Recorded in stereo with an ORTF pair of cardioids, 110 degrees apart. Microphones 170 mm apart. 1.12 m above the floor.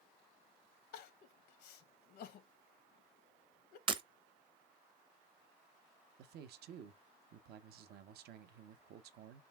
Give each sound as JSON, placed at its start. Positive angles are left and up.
{"t": 0.9, "sound": "crying", "azimuth_deg": 70, "distance_m": 0.7}
{"t": 3.9, "sound": "breaking glass", "azimuth_deg": -30, "distance_m": 0.7}
{"t": 6.2, "sound": "a man speaking", "azimuth_deg": -70, "distance_m": 0.7}